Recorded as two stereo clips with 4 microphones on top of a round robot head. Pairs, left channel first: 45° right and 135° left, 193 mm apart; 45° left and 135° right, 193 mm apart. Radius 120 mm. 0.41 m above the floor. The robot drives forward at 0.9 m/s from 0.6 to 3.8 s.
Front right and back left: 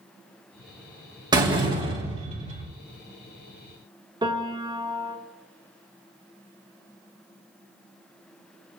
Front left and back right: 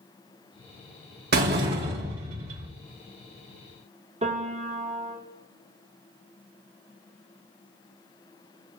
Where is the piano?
170° right, 1.5 m.